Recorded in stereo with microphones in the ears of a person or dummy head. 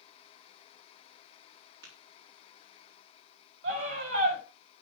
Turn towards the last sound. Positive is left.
turn(degrees=-70)  # may be behind; listen again after turning